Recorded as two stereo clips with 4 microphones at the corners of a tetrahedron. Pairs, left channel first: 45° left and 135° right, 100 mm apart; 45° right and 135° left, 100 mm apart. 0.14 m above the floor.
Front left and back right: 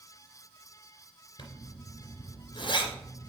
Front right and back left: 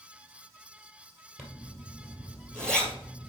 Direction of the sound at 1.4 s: 35° left.